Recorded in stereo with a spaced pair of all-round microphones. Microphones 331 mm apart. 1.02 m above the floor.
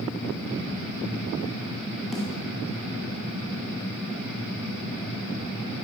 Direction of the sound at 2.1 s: Centre (ahead or behind).